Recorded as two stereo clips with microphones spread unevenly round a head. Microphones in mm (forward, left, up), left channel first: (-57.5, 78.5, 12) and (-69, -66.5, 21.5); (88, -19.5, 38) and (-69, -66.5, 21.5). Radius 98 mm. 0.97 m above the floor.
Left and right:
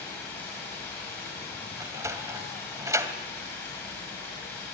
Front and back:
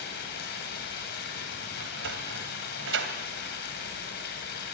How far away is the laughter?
No laughter in this recording.